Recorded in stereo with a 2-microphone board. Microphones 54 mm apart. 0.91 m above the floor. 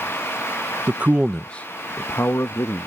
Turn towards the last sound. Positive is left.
turn(degrees=65)  # may be behind; listen again after turning